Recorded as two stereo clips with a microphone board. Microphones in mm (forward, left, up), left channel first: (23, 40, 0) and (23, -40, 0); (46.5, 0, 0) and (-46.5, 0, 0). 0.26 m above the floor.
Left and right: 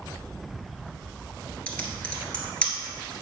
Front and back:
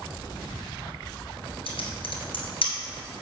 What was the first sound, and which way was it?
Typing on a keyboard, 15° left.